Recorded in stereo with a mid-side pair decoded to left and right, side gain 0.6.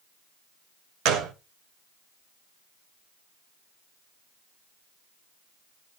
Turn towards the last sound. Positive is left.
turn(degrees=-70)